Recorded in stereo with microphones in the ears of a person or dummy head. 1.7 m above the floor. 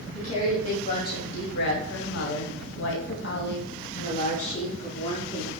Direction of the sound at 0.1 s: 40° left (ahead or behind).